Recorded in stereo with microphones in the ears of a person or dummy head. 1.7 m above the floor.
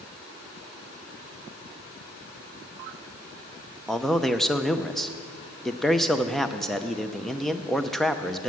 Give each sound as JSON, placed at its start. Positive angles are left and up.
{"t": 3.9, "sound": "a man speaking", "side_deg": 5, "distance_m": 0.6}